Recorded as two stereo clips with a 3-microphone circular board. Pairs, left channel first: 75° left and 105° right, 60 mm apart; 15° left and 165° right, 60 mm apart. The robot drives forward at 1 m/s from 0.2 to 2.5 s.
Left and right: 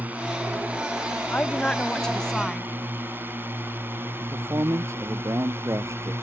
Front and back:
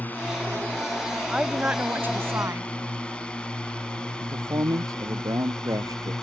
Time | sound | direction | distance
0.0 | a drone | 45° right | ?
1.3 | a woman speaking | 120° left | ?
4.2 | a man speaking | 145° right | ?